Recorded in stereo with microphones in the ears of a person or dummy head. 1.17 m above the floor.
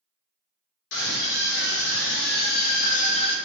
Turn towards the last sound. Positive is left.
turn(degrees=20)  # may be behind; listen again after turning